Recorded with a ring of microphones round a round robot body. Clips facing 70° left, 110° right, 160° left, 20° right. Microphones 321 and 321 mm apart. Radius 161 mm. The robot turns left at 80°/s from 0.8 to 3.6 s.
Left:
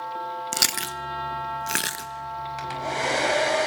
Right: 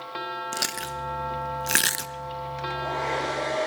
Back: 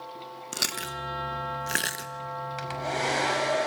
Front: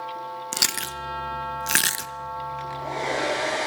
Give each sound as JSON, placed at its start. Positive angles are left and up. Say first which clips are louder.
{"t": 0.5, "sound": "chewing", "louder": "even, front 1 dB", "azimuth_deg": 30, "distance_m": 1.0}
{"t": 2.6, "sound": "a hair dryer", "louder": "left 2 dB, even", "azimuth_deg": 135, "distance_m": 5.5}